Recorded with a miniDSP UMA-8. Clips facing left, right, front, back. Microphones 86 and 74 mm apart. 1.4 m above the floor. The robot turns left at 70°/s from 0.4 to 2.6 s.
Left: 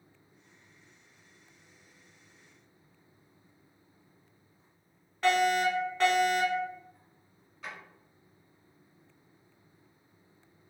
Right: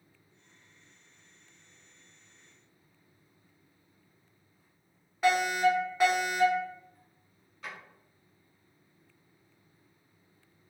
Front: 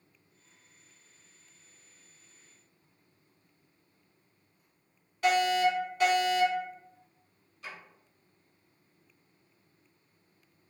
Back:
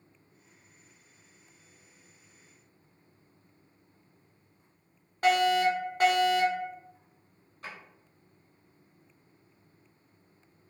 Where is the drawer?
Straight behind, 1.5 m.